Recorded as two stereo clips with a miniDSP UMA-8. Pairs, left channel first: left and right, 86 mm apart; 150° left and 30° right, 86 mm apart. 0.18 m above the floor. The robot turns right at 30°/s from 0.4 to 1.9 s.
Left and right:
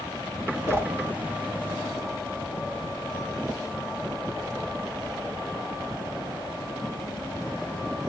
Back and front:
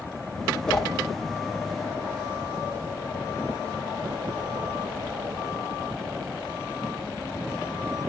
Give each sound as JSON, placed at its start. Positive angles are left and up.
{"t": 0.7, "sound": "a whoosh", "azimuth_deg": -130, "distance_m": 0.8}